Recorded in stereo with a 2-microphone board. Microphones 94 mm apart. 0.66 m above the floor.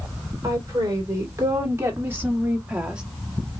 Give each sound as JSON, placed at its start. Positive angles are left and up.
{"t": 0.4, "sound": "a woman speaking", "side_deg": -40, "distance_m": 2.5}